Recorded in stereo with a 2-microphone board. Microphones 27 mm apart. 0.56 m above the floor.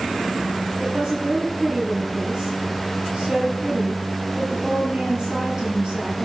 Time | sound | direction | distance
0.8 | a woman speaking | 35° right (ahead or behind) | 8 m